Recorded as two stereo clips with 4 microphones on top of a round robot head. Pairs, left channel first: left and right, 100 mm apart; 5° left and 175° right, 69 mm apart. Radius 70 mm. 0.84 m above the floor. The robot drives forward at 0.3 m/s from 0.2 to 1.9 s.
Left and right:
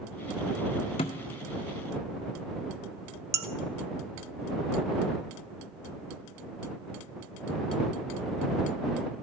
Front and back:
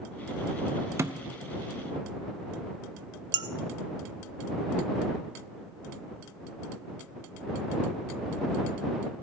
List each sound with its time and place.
1.0 s a thud: 140° left, 0.7 m
3.3 s dishes clattering: 150° right, 0.7 m